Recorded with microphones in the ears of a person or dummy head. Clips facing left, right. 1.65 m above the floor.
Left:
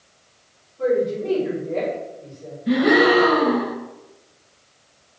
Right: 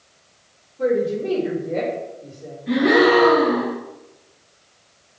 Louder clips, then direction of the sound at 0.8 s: Even; 5° right (ahead or behind).